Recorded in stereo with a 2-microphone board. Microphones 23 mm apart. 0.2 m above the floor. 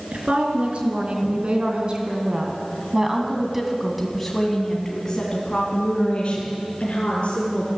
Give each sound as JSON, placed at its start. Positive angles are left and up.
{"t": 0.1, "sound": "a woman speaking", "side_deg": -60, "distance_m": 3.5}